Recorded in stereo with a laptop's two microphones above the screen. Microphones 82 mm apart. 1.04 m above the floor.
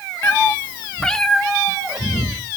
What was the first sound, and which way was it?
A cat meowing, 25° left (ahead or behind).